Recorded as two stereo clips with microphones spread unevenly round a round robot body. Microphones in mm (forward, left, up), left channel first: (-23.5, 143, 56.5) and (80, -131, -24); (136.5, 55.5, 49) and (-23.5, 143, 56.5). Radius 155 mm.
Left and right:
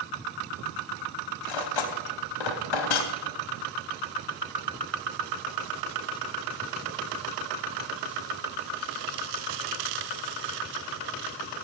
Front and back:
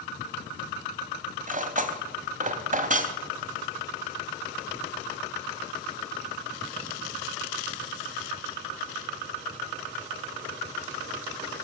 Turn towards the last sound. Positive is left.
turn(degrees=105)